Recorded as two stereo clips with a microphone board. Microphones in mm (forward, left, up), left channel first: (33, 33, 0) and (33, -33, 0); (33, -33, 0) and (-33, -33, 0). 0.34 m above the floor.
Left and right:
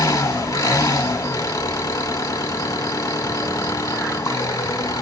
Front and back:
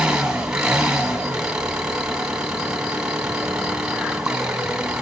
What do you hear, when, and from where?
0.0 s an engine running: 105° left, 1.7 m